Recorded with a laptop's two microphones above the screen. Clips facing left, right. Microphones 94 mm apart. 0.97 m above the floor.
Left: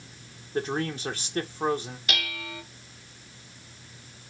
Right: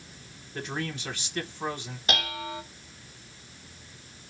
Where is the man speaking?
35° left (ahead or behind), 0.9 m.